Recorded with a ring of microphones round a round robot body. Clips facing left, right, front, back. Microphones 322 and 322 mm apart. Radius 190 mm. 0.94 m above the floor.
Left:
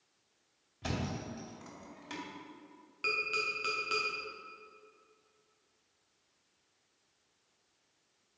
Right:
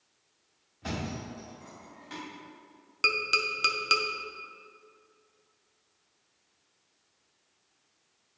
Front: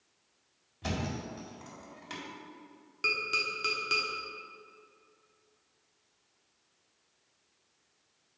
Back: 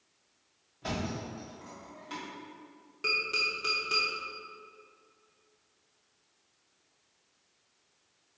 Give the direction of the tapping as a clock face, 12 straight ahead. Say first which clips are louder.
Right 4 dB, back 1 dB; 2 o'clock.